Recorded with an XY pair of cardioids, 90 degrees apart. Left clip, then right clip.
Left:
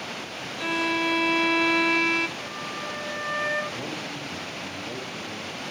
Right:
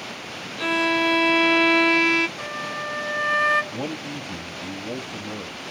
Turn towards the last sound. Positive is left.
turn(degrees=-70)